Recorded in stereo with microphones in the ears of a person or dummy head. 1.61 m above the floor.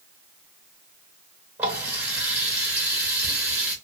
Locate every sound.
1.6 s a running tap: 20° right (ahead or behind), 1.1 m